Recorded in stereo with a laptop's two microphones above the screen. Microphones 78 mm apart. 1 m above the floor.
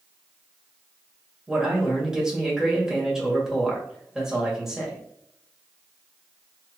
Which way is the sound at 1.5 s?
5° right (ahead or behind).